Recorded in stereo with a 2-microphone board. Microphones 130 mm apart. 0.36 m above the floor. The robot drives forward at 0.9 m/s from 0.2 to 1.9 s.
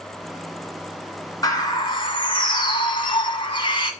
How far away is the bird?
About 1.7 m.